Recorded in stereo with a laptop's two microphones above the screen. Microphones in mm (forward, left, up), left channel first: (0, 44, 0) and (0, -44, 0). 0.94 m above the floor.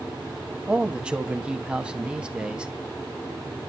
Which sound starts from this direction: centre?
A man speaking, at 0.7 s.